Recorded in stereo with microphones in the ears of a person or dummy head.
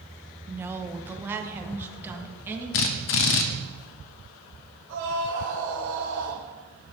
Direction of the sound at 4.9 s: 85° right.